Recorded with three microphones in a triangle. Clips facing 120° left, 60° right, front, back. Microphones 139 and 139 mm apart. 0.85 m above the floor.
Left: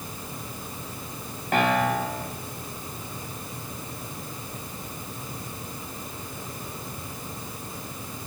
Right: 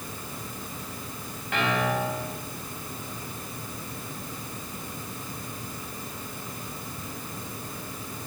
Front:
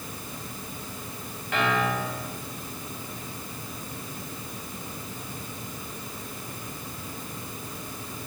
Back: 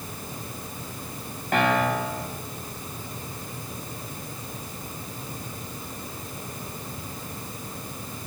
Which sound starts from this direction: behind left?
A piano, at 1.5 s.